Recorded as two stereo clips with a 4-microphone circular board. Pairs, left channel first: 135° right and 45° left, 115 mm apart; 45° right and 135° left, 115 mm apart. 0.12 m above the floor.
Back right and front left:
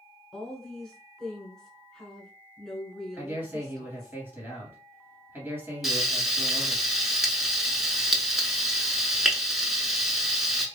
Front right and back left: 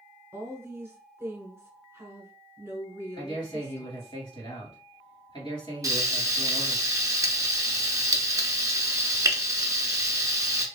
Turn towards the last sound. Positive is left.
turn(degrees=130)